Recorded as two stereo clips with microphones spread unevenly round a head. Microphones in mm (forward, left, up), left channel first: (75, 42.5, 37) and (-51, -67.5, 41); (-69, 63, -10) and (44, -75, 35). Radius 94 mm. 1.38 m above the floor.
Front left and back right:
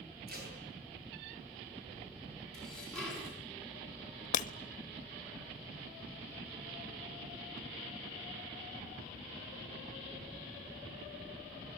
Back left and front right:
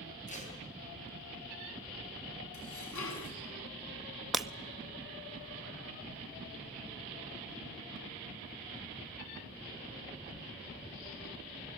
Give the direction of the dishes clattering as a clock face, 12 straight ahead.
8 o'clock.